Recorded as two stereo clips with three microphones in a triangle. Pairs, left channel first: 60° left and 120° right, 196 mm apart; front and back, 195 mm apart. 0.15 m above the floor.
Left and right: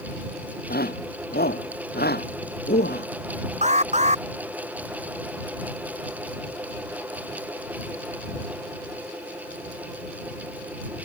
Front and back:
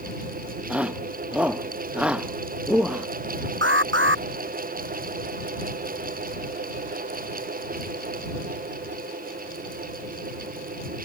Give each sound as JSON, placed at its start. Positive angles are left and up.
{"t": 0.7, "sound": "a shout", "azimuth_deg": 95}
{"t": 3.6, "sound": "an alarm", "azimuth_deg": -175}